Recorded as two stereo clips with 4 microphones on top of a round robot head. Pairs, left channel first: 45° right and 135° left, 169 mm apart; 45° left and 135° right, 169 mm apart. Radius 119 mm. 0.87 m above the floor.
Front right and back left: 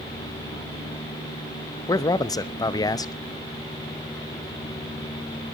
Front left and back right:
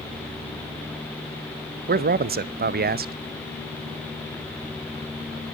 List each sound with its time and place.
1.9 s a man speaking: 115° right, 0.8 m